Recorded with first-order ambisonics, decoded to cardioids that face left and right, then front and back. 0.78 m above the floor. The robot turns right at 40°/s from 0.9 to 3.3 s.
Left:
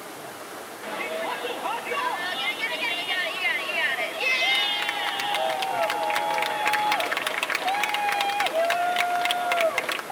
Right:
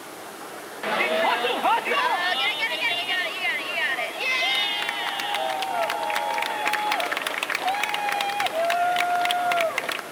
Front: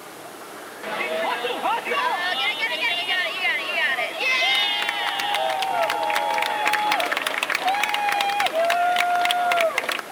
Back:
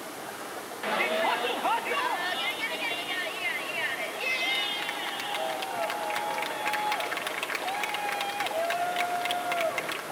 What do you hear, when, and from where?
0.8 s a shout: 100° right, 0.6 m; by 10.0 s straight ahead, 0.6 m